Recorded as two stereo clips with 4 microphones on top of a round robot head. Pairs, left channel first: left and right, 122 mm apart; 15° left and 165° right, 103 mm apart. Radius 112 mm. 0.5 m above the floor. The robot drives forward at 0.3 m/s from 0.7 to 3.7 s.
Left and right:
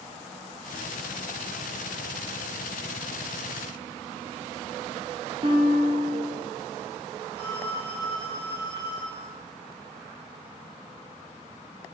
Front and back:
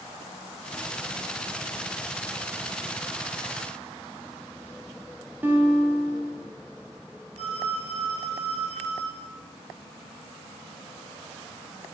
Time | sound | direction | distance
5.4 | a guitar | 105° right | 1.7 m
7.4 | a phone ringing | 160° right | 3.5 m